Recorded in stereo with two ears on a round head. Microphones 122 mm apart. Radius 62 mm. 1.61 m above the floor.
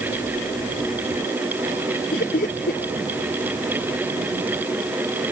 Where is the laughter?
65° left (ahead or behind).